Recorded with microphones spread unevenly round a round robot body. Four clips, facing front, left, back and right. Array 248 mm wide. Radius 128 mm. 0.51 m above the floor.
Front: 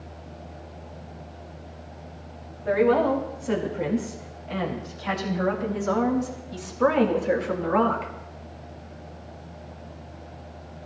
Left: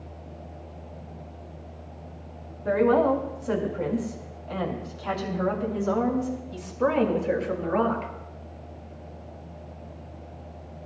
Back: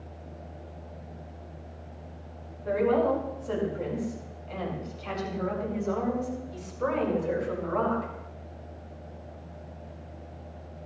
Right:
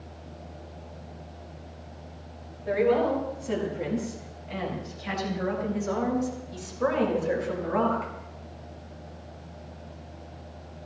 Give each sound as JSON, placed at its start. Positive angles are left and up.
{"t": 2.6, "sound": "a woman speaking", "azimuth_deg": 60, "distance_m": 7.0}